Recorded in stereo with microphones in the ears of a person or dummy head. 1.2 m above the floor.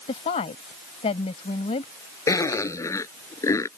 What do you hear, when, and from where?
0.1 s a woman speaking: 40° left (ahead or behind)
2.3 s a zipper: 10° left (ahead or behind)